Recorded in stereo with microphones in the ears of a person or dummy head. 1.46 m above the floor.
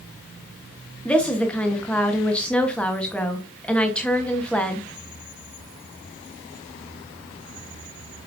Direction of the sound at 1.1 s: Centre (ahead or behind).